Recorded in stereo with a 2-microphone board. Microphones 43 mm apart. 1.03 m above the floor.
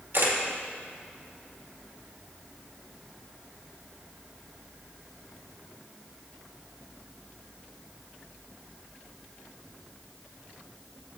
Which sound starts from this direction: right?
A camera shutter, at 0.1 s.